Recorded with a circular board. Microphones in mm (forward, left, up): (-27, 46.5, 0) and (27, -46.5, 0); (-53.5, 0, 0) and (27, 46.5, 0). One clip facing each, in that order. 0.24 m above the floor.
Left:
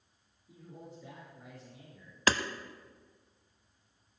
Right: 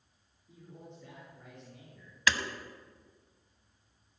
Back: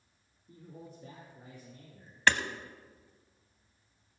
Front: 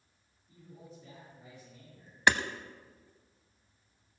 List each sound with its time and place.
0.5 s a man speaking: 160° right, 4 m
2.3 s hammering: 100° left, 0.7 m